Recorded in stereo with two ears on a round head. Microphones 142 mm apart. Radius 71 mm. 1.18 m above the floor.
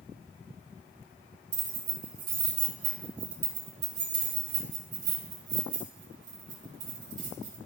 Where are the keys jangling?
50° right (ahead or behind), 4 m.